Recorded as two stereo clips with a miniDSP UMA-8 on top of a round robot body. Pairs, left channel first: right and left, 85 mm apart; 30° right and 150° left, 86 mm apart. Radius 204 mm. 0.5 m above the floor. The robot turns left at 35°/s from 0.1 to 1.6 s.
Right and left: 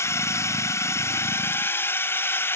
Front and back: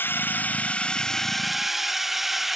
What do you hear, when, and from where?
0.0 s a drone: 70° right; by 2.6 s 125° right